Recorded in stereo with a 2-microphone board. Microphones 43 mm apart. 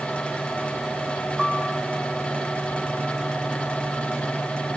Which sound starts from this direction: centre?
A piano, at 1.4 s.